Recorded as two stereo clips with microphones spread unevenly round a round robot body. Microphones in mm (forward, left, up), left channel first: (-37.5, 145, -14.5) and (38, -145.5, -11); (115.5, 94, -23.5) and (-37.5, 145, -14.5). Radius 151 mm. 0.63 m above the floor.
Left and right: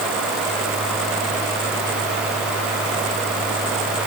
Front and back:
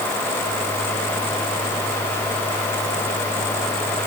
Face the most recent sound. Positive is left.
No sound to turn to.